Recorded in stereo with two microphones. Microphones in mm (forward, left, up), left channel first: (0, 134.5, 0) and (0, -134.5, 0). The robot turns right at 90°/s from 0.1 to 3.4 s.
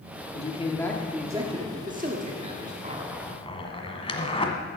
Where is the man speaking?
120° left, 1.3 m; by 2.7 s 25° right, 1.3 m.